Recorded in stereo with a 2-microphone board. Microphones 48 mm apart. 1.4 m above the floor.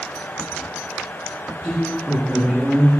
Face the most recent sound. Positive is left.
turn(degrees=-20)  # may be behind; listen again after turning